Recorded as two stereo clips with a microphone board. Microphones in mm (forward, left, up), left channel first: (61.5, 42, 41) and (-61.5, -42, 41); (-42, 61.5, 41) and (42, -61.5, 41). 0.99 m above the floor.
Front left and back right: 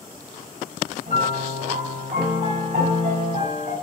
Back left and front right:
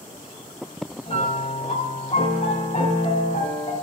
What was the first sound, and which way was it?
A piano, 170° left.